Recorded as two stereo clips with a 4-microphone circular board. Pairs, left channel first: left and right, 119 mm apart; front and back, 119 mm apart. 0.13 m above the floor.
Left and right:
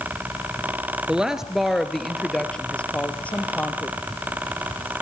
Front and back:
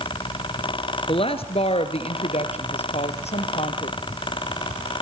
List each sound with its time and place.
1.1 s a woman speaking: 10° right, 1.9 m; by 4.0 s 15° left, 3 m